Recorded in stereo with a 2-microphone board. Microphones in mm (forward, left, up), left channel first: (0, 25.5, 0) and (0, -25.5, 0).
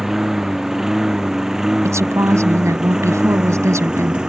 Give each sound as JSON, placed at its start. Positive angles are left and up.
{"t": 0.0, "sound": "a lawn mower", "side_deg": -10}
{"t": 1.8, "sound": "a woman speaking", "side_deg": -80}